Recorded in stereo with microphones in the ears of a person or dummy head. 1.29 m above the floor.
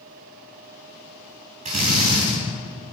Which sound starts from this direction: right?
A drill, at 1.6 s.